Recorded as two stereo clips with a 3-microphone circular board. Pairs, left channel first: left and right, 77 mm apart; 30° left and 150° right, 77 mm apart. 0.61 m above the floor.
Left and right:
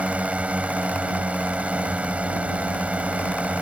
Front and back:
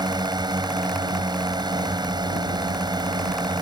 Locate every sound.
0.0 s a drone: 160° right